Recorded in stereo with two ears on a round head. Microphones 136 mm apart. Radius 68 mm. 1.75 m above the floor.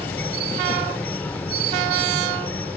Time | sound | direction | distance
0.0 | an insect | 10° left (ahead or behind) | ?